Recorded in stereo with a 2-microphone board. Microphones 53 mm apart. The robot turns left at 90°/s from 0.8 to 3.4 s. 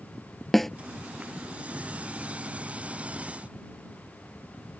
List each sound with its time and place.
0.5 s a snare drum: centre (ahead or behind)